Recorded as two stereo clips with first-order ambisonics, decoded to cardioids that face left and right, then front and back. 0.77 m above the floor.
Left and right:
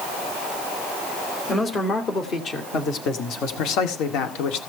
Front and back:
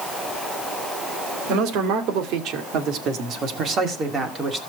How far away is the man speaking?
About 2.5 m.